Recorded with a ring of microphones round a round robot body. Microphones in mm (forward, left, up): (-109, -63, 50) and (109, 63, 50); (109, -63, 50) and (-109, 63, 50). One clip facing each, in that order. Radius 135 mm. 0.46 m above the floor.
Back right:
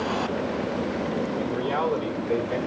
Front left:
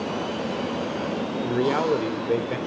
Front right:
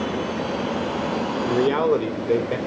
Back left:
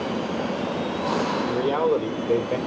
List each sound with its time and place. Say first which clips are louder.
1.4 s a man speaking: front left 3 dB, front right 5 dB; 15° left, 1.2 m; by 2.6 s 30° left, 1.9 m